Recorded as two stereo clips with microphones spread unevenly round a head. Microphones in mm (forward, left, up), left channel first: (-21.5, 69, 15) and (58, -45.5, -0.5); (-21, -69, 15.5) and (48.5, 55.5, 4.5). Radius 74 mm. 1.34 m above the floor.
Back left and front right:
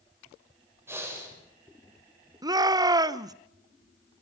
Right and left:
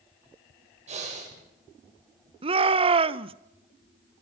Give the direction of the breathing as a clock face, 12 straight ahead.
11 o'clock.